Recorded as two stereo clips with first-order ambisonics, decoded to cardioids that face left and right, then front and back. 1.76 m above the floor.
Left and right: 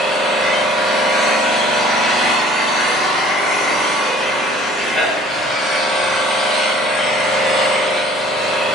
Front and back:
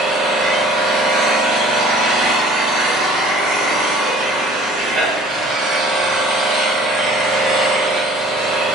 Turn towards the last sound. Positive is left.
turn(degrees=-175)